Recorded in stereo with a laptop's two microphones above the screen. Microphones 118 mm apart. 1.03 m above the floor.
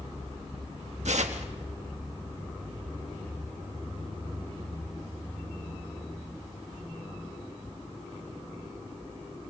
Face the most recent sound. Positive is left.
turn(degrees=-80)